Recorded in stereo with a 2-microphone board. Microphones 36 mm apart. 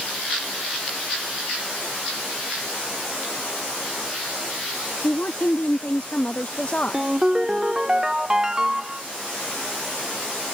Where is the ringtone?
20° right (ahead or behind).